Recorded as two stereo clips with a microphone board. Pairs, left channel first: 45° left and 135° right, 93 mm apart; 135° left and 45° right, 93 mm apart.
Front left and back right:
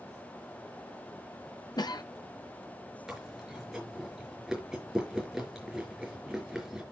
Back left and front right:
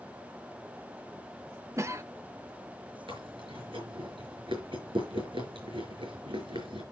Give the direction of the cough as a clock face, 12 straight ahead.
12 o'clock.